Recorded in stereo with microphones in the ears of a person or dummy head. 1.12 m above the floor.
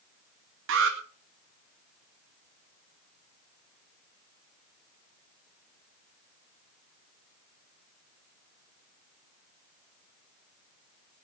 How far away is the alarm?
About 2 m.